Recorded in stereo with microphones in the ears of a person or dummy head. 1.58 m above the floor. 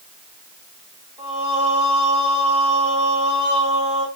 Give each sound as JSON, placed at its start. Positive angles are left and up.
{"t": 1.2, "sound": "singing", "side_deg": -15, "distance_m": 2.5}